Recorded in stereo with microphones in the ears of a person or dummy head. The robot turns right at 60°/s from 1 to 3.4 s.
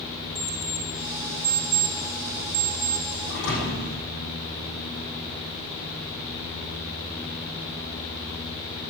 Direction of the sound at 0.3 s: 40° right (ahead or behind).